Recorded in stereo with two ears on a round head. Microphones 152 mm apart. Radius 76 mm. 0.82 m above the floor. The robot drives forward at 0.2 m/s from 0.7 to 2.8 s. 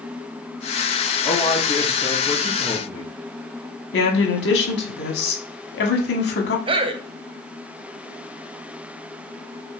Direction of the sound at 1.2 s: 30° left (ahead or behind).